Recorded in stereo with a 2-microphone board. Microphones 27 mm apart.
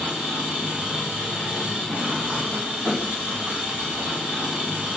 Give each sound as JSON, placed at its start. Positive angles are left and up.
{"t": 0.0, "sound": "an engine running", "side_deg": -85, "distance_m": 7.5}